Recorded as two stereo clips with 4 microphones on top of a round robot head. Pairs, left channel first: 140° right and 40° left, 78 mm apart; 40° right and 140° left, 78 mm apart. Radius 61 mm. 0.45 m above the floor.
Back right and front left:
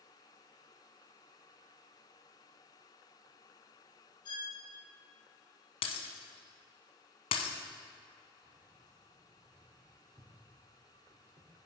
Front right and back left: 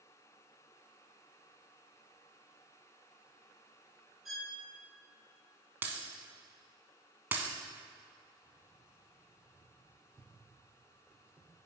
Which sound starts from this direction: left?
Keys jangling, at 8.4 s.